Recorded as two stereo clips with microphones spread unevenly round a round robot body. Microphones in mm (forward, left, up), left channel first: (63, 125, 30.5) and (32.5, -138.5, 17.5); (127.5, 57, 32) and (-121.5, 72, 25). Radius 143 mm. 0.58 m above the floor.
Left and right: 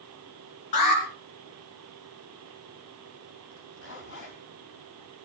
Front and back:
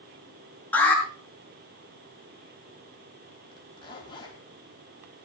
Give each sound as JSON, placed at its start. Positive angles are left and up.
{"t": 0.7, "sound": "an alarm", "azimuth_deg": 80, "distance_m": 5.5}
{"t": 3.5, "sound": "a zipper", "azimuth_deg": 70, "distance_m": 4.0}